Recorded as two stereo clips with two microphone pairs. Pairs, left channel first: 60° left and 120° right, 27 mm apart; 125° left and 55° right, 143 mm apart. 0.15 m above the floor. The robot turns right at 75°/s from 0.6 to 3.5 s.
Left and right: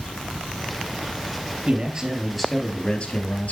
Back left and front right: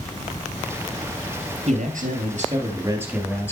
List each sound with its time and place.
1.7 s a man speaking: 80° right, 2.5 m; by 3.5 s 55° left, 2.5 m